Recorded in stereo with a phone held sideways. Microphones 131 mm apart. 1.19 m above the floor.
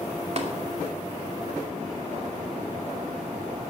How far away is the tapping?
About 2.5 m.